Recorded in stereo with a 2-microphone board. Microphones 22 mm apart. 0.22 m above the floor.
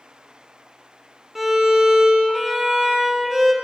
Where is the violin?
10° right (ahead or behind), 0.8 m.